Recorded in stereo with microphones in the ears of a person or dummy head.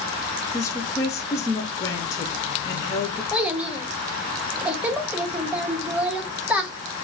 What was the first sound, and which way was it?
A woman speaking, 15° left (ahead or behind).